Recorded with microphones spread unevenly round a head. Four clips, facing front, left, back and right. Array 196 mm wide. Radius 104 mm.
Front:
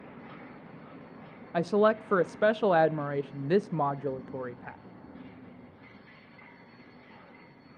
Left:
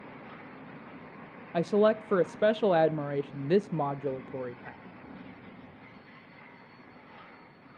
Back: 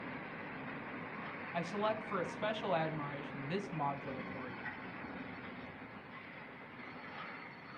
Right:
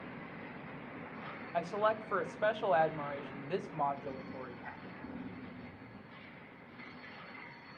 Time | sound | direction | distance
1.5 | a woman speaking | 55° left | 0.5 m